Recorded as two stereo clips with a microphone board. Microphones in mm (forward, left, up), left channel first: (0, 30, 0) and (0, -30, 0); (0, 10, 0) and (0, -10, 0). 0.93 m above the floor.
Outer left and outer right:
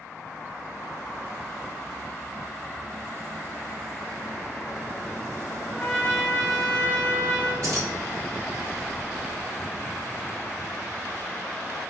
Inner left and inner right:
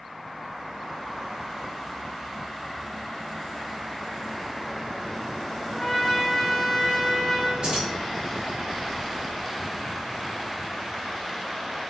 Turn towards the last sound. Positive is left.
turn(degrees=-60)  # may be behind; listen again after turning